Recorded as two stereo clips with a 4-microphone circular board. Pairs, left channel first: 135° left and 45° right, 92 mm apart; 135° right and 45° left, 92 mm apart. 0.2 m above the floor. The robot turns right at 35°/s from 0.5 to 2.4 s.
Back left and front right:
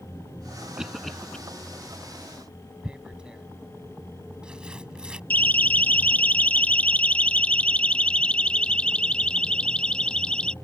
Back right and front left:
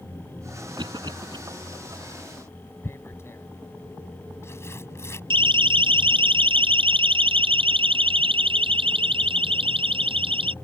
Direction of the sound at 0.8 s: 35° left.